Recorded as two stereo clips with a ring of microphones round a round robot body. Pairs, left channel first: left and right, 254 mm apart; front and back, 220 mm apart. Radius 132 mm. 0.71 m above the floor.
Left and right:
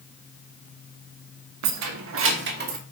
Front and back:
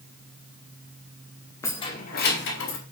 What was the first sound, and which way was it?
Keys jangling, 80° right.